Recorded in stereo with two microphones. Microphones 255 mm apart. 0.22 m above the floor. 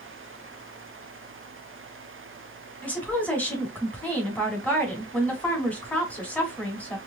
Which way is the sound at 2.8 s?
5° left (ahead or behind).